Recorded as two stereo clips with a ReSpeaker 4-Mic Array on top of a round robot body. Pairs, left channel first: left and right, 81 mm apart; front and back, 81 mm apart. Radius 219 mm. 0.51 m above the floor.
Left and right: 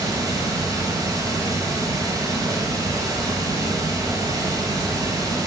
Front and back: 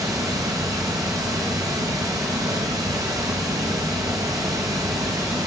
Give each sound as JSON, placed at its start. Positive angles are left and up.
{"t": 0.0, "sound": "running water", "azimuth_deg": -135, "distance_m": 1.4}